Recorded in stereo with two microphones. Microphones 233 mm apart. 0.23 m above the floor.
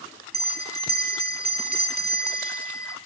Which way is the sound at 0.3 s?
40° right (ahead or behind).